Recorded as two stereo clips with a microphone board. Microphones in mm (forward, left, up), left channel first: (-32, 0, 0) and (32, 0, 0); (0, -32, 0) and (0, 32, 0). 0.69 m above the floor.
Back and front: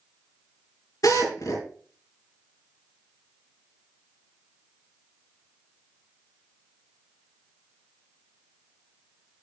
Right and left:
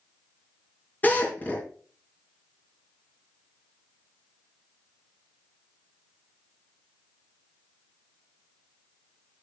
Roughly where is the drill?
Behind right.